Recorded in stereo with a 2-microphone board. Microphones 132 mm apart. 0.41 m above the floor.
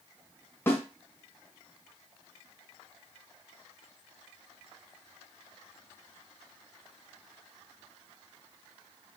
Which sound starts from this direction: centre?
A snare drum, at 0.7 s.